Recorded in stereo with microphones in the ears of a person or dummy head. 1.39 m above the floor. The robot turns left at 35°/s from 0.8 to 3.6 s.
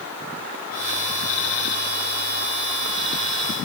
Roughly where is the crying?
I don't hear crying.